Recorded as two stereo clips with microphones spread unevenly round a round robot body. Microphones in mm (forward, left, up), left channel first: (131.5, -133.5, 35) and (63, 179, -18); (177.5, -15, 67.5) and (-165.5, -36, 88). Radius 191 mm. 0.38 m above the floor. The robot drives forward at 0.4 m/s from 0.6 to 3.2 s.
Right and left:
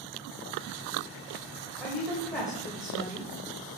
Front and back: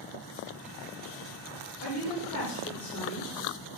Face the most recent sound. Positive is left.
turn(degrees=30)